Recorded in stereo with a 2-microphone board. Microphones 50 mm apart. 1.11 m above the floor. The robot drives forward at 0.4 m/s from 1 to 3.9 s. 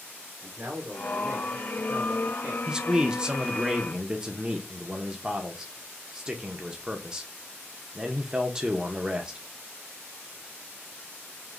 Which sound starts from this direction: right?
A man speaking, at 0.4 s.